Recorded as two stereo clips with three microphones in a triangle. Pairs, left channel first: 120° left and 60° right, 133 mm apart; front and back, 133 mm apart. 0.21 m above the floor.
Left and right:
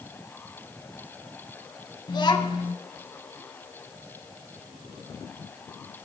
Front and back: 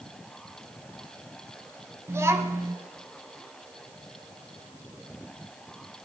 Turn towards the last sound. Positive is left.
turn(degrees=130)